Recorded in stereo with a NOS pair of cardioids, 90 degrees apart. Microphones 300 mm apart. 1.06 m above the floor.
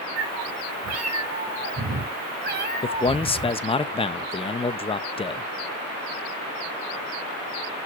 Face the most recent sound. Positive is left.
turn(degrees=15)